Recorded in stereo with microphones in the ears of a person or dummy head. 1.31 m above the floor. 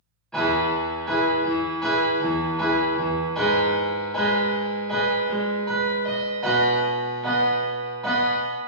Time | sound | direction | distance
0.3 | a piano | centre (ahead or behind) | 0.8 m